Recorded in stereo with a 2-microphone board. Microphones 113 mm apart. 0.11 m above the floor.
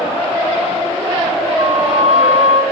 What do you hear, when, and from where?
1.6 s a flute: 60° right (ahead or behind), 1.8 m